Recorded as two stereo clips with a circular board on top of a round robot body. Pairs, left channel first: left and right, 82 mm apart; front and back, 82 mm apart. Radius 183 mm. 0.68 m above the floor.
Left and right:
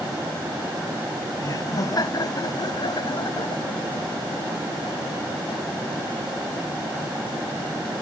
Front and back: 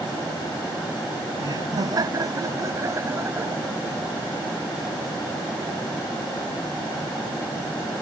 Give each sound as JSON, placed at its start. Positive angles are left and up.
{"t": 1.4, "sound": "laughter", "azimuth_deg": 140}